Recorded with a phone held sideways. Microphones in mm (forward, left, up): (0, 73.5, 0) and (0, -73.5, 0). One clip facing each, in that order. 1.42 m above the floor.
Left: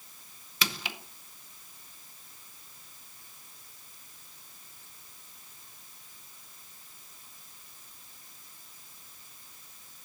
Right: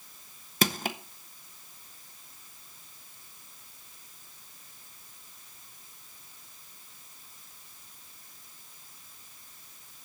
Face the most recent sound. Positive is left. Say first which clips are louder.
# right 8 dB
turn(degrees=-45)  # may be behind; listen again after turning